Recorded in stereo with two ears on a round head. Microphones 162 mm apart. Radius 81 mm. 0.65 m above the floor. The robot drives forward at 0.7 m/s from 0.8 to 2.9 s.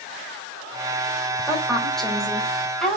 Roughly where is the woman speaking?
Centre.